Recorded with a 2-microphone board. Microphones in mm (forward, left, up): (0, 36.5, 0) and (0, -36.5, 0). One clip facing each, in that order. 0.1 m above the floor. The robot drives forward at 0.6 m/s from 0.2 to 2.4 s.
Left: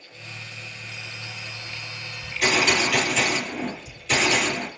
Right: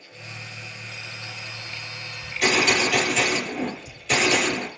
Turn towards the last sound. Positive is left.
turn(degrees=0)  # may be behind; listen again after turning